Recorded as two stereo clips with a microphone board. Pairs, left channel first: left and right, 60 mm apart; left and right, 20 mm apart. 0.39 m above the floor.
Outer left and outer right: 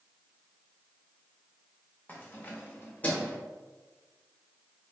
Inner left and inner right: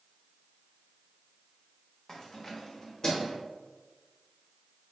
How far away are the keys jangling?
About 0.7 m.